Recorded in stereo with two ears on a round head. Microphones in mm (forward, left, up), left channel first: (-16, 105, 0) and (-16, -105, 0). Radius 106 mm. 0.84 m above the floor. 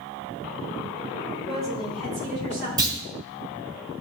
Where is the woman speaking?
30° right (ahead or behind), 3 m; by 2.7 s 45° right (ahead or behind), 3.5 m.